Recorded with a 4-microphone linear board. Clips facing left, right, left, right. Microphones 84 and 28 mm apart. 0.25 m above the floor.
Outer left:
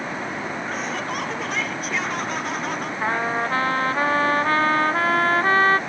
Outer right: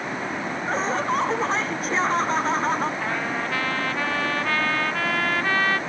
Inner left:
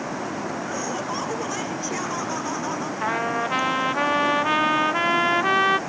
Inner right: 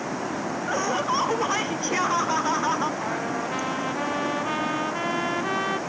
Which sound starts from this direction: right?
Laughter, at 0.7 s.